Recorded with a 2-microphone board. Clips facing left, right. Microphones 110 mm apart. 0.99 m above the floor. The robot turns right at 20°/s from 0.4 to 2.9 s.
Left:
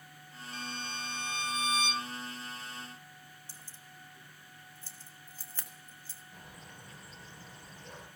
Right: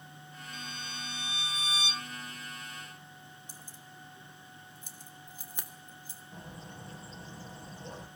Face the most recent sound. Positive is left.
turn(degrees=-30)  # may be behind; listen again after turning